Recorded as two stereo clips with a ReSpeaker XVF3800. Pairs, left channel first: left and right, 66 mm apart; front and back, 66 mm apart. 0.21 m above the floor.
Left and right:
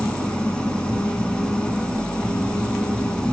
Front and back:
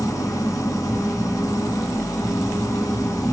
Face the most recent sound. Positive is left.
turn(degrees=15)